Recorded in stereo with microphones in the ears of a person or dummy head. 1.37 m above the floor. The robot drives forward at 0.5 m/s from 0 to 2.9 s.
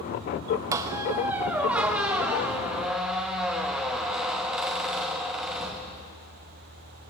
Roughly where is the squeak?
Centre.